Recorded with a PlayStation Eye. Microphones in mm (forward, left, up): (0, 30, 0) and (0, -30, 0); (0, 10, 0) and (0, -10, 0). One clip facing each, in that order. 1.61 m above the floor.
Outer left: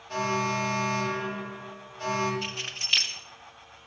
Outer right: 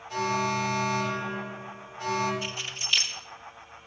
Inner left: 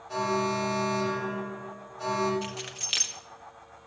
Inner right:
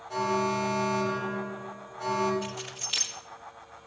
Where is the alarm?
55° left (ahead or behind), 6.5 m.